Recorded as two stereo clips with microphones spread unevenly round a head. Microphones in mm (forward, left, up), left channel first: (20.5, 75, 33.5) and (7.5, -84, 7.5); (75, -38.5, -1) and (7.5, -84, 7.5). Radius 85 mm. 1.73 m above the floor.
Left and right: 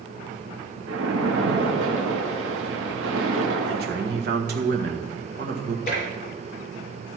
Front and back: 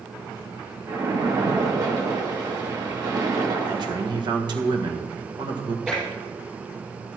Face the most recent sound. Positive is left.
turn(degrees=130)